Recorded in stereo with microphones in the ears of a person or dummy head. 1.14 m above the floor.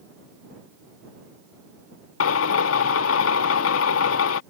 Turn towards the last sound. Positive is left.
turn(degrees=90)